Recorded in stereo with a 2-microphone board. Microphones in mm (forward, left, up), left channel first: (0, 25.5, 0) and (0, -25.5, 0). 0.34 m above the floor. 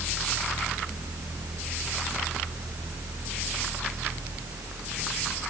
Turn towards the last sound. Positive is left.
No sound to turn to.